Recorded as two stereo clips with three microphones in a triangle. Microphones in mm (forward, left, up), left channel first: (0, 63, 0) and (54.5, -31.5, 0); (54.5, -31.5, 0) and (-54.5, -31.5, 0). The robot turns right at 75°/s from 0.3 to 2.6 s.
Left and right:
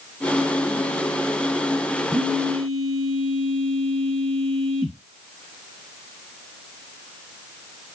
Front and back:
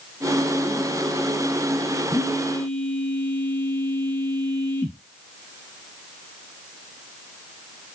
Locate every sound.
2.1 s a phone buzzing: 30° left, 3 m; by 5.0 s 70° left, 3 m